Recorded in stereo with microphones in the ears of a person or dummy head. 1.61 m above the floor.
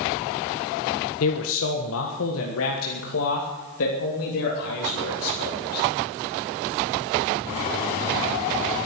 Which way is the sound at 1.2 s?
80° left.